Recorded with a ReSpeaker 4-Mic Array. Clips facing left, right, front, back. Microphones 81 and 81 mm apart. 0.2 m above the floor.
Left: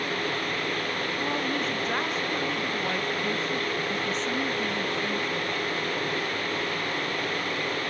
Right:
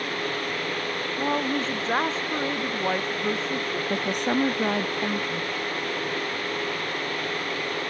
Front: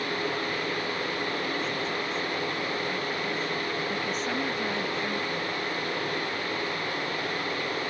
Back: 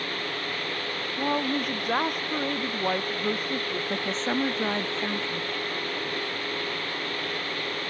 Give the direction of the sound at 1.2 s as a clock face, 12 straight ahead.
5 o'clock.